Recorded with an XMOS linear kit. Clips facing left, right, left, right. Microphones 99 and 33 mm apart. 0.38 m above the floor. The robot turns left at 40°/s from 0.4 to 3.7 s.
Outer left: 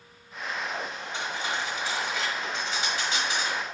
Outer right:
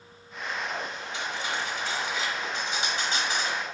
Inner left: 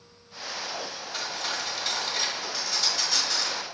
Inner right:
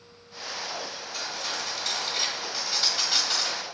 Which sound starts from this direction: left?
Cutlery clinking, at 1.1 s.